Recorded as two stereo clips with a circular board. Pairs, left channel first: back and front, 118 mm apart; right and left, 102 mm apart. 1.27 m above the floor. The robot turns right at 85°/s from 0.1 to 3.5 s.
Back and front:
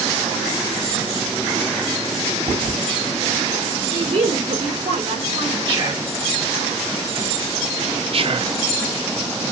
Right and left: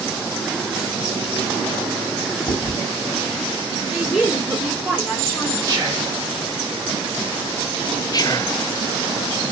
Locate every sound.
2.5 s chewing: 45° right, 3.5 m; by 2.8 s 20° right, 3.5 m
3.9 s a woman speaking: 10° left, 2.5 m
5.7 s whispering: 40° left, 1.8 m
8.1 s whispering: 40° right, 0.5 m